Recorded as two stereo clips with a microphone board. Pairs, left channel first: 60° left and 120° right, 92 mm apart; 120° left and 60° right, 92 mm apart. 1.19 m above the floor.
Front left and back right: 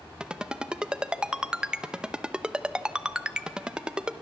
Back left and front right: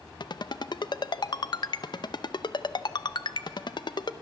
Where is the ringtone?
160° left, 0.7 m.